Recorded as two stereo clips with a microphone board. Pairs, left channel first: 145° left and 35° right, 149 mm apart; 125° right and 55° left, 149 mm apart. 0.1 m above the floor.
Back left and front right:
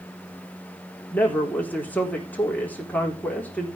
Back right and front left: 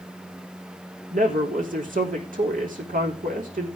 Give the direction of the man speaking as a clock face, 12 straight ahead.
10 o'clock.